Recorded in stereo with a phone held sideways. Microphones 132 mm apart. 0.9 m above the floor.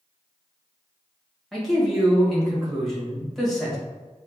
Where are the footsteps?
I don't hear footsteps.